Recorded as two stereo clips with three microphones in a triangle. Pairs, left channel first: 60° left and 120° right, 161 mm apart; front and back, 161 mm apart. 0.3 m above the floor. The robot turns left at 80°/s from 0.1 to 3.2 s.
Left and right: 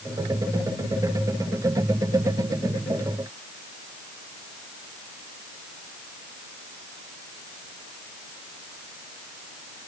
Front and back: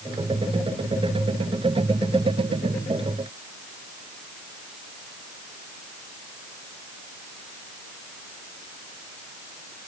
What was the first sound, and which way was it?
Only background noise.